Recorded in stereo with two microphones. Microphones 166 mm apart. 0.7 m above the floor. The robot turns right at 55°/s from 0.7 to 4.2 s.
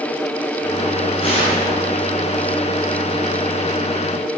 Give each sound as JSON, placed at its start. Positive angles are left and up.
{"t": 1.2, "sound": "tearing paper", "side_deg": 35, "distance_m": 4.0}